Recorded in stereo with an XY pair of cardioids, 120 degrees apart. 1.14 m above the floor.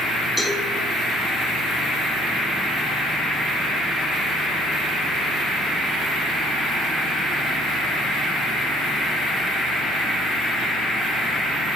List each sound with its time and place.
0.4 s a cowbell: 5° right, 2.5 m